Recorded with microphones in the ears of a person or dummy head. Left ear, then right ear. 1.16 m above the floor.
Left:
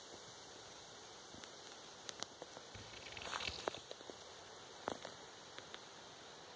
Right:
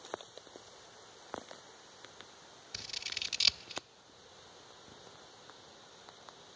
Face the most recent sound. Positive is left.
turn(degrees=-75)  # may be behind; listen again after turning